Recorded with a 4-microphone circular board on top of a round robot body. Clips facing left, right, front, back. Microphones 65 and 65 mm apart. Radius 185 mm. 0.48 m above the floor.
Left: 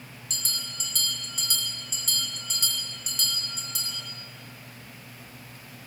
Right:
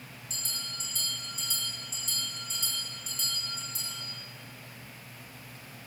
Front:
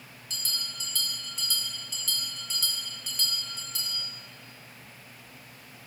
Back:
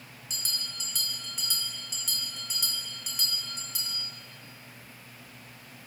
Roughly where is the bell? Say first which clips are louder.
Left 5 dB, front 1 dB; left.